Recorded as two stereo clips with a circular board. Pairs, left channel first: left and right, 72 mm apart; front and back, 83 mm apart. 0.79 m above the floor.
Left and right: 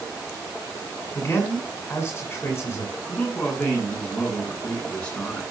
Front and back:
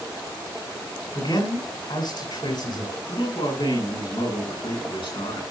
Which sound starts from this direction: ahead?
A man speaking, at 3.1 s.